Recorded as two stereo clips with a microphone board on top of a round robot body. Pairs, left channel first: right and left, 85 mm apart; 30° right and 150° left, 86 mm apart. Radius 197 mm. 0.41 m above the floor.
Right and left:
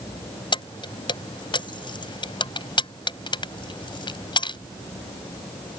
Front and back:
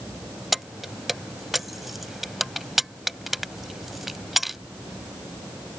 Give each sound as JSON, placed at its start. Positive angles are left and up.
{"t": 0.5, "sound": "keys jangling", "azimuth_deg": -120}